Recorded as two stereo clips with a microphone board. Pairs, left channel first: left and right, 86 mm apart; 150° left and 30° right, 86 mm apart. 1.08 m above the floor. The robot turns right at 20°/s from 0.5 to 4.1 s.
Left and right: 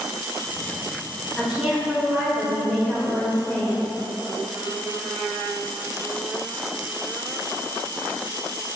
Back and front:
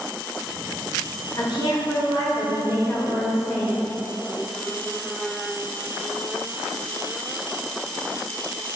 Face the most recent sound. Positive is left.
turn(degrees=-130)